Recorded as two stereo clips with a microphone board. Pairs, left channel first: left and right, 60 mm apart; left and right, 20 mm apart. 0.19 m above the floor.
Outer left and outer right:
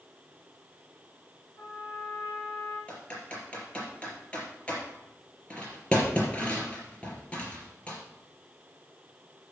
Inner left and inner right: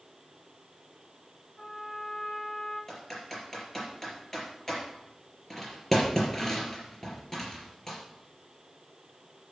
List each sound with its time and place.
1.6 s a trumpet: 50° left (ahead or behind), 6.5 m
2.9 s typing on a keyboard: 20° left (ahead or behind), 4.5 m